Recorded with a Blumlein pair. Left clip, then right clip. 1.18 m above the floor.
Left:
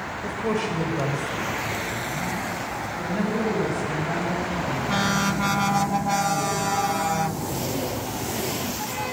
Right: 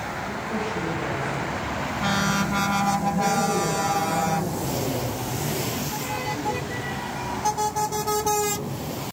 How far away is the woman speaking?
About 4 m.